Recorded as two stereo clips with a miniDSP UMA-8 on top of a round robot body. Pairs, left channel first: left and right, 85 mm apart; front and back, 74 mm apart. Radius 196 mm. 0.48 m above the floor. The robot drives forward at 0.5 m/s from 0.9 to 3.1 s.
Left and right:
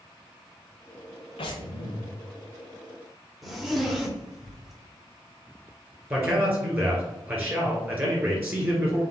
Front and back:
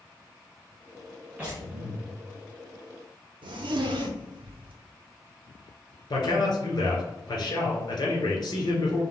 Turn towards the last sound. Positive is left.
turn(degrees=-30)